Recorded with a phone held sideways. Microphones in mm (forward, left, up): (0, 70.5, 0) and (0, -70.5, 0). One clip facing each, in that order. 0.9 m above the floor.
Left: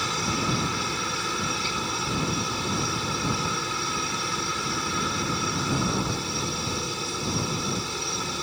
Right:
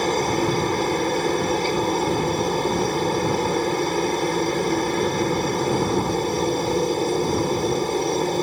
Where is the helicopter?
55° right (ahead or behind).